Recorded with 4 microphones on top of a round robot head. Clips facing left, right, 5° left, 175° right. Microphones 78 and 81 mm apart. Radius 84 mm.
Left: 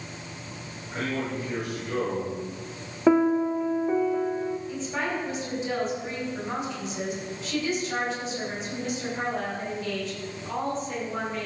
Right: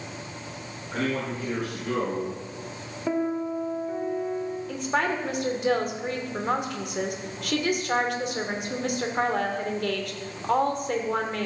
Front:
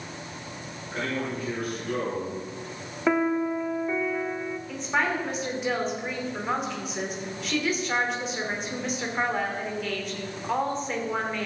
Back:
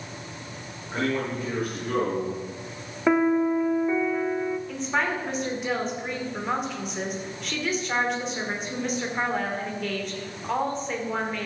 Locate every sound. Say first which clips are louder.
0.9 s a man speaking: right 2 dB, back 3 dB; 115° right, 5 m
3.1 s a piano: left 7 dB, back 3 dB; 100° left, 0.7 m
4.7 s a woman speaking: right 4 dB, front 4 dB; 85° right, 2.5 m